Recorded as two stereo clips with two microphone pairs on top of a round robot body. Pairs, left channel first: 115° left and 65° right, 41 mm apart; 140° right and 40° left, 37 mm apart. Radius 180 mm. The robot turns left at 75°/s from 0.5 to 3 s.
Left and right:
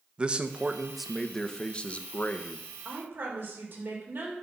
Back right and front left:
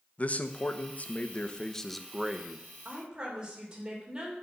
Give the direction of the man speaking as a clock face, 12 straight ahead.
4 o'clock.